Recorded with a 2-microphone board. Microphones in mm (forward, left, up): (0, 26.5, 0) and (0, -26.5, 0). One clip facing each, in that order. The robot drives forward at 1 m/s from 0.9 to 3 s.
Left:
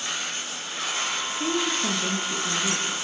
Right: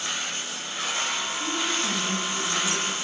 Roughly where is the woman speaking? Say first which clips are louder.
Left 4 dB; left.